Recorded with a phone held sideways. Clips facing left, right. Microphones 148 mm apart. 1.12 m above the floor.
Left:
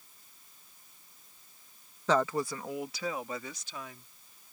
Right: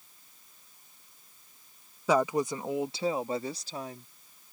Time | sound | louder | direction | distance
2.1 | a woman speaking | right 2 dB | 10° right (ahead or behind) | ?